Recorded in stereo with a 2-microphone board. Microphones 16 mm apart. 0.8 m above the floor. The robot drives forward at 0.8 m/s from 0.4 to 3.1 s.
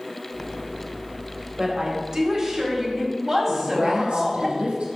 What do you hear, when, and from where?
1.6 s a woman speaking: 40° right (ahead or behind), 3 m; by 4.5 s 30° right (ahead or behind), 4 m
3.5 s a woman speaking: 75° right (ahead or behind), 5 m